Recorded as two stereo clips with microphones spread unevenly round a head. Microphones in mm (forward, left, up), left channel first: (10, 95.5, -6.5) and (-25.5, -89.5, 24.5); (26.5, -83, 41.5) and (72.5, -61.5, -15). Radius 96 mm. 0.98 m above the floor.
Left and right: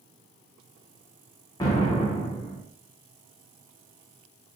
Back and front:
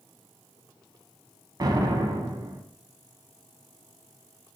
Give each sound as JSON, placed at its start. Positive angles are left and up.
{"t": 1.6, "sound": "an explosion", "azimuth_deg": 5, "distance_m": 0.9}